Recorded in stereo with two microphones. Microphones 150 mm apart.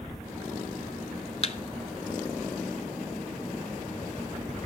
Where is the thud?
45° left (ahead or behind), 0.6 m.